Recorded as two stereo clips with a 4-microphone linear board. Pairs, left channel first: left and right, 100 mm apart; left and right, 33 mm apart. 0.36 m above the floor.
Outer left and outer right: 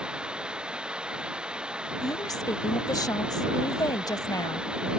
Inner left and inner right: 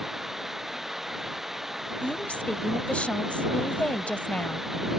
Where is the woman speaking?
40° left (ahead or behind).